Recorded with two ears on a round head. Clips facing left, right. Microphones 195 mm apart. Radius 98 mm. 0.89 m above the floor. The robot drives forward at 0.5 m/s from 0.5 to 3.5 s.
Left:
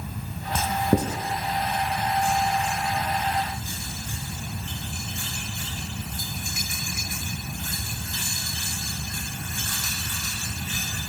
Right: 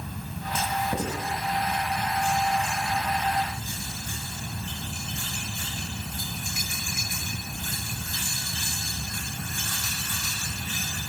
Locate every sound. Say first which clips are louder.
0.6 s writing: left 6 dB; 40° left (ahead or behind), 1.7 m; by 1.2 s 35° left (ahead or behind), 1.9 m